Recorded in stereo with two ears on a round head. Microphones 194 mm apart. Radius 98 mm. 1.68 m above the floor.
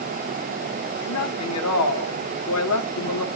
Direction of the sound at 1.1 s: 85° left.